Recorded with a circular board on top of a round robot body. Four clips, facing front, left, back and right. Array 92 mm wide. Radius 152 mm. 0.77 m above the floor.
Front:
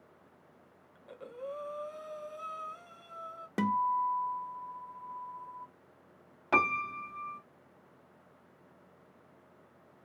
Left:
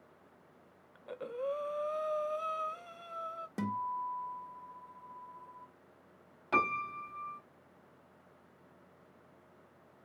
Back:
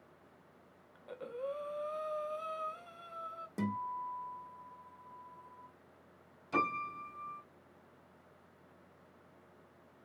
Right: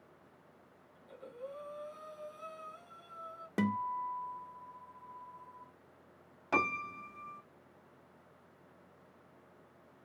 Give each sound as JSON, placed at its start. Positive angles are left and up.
{"t": 0.9, "sound": "breathing", "azimuth_deg": 105, "distance_m": 0.9}
{"t": 3.6, "sound": "a guitar", "azimuth_deg": -35, "distance_m": 1.1}
{"t": 6.5, "sound": "a piano", "azimuth_deg": -10, "distance_m": 1.2}